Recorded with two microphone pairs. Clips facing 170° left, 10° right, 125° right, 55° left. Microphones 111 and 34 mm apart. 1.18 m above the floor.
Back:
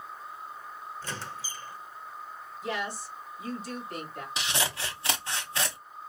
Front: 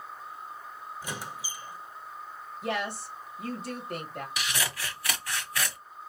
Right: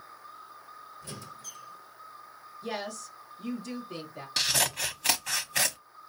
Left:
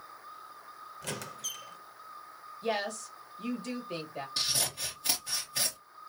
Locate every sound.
1.0 s a squeak: 65° left, 0.5 m
2.6 s a woman speaking: 25° left, 1.9 m
4.4 s scissors: 125° right, 0.8 m